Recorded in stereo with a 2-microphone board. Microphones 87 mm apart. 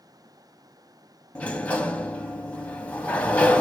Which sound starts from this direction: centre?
A sliding door, at 1.4 s.